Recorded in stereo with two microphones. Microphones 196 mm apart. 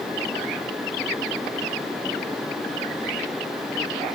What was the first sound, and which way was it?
Only background noise.